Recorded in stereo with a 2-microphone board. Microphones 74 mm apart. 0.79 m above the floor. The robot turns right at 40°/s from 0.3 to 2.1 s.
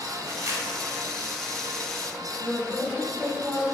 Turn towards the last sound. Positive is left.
turn(degrees=15)  # may be behind; listen again after turning